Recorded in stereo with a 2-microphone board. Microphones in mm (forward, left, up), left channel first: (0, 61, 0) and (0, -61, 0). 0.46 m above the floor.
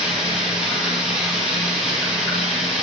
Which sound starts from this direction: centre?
Running water, at 0.0 s.